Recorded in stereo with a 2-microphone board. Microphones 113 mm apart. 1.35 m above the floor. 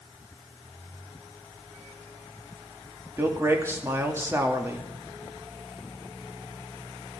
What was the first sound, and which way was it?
A man speaking, 25° right (ahead or behind).